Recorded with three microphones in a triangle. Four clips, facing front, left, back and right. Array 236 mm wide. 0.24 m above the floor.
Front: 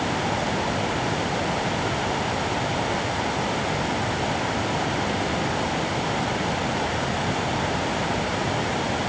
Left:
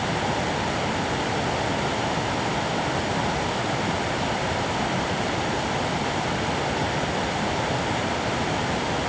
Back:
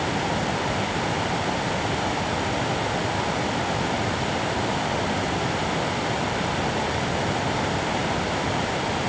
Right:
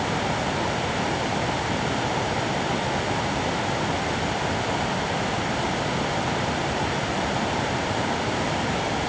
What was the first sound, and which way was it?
Only background noise.